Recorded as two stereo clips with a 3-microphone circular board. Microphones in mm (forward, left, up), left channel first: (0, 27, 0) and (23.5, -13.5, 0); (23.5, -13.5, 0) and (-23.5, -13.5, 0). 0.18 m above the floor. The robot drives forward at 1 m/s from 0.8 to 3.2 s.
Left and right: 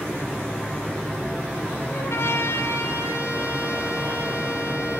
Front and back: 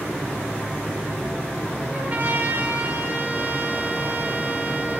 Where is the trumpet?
130° left, 2.5 m; by 5.0 s 145° left, 3.5 m.